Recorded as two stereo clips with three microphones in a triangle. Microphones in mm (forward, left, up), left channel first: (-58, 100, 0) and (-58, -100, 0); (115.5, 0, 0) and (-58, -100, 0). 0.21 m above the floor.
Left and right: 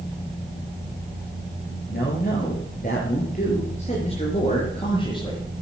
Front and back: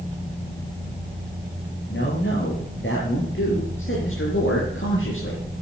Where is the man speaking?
55° left, 5.5 m; by 5.4 s 25° left, 5 m.